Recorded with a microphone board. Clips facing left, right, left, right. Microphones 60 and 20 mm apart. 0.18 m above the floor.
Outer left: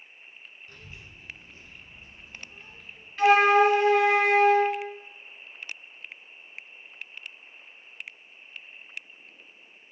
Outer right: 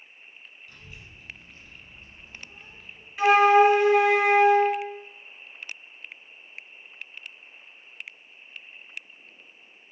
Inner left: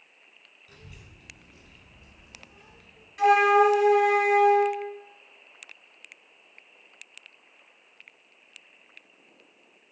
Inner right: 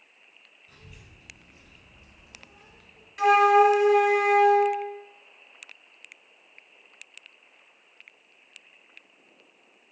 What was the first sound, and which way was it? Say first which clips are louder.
A child speaking: even, inner left 1 dB; 45° left (ahead or behind).